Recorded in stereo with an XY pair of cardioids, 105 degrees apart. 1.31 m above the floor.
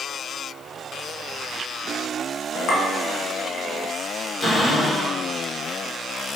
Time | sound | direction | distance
2.7 | a clink | 65° left | 1.0 m
4.4 | a cupboard door | 30° left | 1.2 m